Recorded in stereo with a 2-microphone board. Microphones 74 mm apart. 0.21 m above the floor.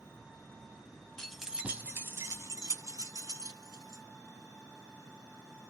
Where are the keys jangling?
5° left (ahead or behind), 0.7 m; by 4.0 s 60° right (ahead or behind), 1.7 m.